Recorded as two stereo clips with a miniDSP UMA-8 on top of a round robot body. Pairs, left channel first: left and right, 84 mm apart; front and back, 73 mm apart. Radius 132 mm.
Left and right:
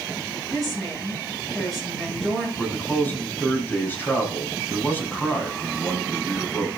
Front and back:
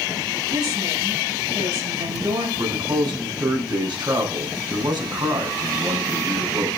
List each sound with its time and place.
0.5 s a woman speaking: 175° left, 9 m
2.6 s a man speaking: 160° left, 6.5 m